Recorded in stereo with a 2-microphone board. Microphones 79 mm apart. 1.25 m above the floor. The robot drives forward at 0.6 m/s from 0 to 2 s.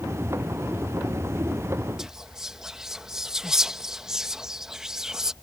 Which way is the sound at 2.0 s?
5° right (ahead or behind).